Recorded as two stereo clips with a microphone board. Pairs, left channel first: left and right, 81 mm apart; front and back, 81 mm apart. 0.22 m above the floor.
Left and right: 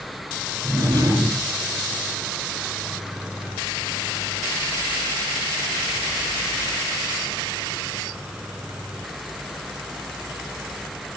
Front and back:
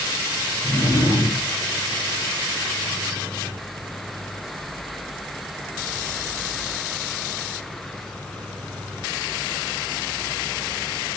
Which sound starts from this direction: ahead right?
A drawer, at 0.6 s.